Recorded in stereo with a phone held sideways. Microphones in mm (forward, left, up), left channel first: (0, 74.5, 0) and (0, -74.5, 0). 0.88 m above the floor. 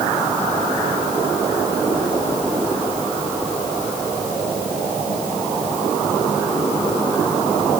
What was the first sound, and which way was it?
Only background noise.